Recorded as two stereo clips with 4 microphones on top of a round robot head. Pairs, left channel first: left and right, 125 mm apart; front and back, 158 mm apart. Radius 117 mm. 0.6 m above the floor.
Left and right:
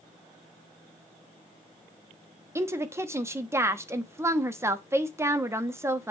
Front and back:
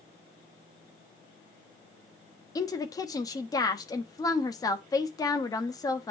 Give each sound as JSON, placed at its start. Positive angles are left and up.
{"t": 2.5, "sound": "a woman speaking", "azimuth_deg": -40, "distance_m": 1.1}